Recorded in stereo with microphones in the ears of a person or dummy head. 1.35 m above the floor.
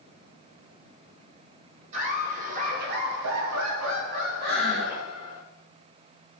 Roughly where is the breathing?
Right.